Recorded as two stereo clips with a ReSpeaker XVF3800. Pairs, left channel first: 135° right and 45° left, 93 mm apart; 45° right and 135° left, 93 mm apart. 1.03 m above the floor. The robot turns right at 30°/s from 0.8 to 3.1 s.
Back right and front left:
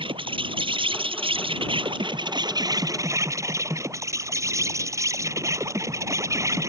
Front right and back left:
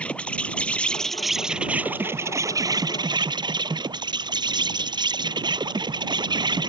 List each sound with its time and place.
0.0 s an insect: 30° left; by 6.7 s 100° left